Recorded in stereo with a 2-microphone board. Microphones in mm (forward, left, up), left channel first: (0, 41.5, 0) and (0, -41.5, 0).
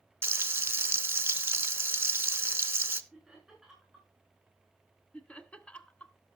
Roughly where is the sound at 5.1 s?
Centre.